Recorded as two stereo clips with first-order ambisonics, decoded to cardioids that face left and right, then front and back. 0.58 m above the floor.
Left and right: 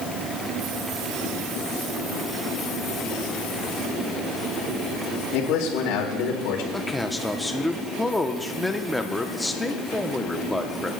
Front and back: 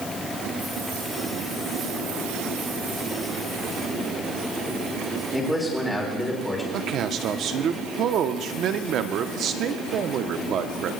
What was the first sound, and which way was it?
A man speaking, 85° left.